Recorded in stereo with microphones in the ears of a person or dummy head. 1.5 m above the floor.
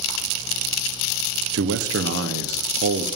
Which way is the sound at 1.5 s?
70° right (ahead or behind).